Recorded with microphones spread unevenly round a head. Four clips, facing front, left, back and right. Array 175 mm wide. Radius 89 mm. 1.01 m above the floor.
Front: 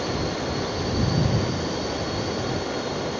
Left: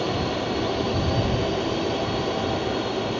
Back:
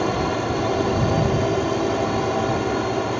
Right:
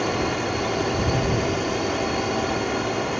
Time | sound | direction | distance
0.0 | a drone | straight behind | ?